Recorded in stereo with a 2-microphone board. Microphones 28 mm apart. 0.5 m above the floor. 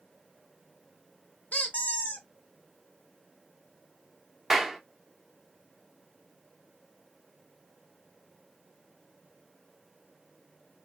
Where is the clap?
5° right (ahead or behind), 0.7 m.